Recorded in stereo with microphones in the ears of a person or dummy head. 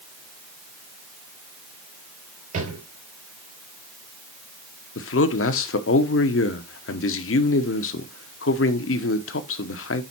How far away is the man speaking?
About 0.9 m.